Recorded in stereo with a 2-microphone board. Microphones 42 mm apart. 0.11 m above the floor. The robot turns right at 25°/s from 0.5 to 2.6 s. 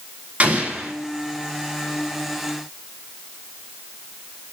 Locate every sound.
0.4 s an explosion: 35° right (ahead or behind), 1.4 m; by 0.9 s 30° right (ahead or behind), 1.4 m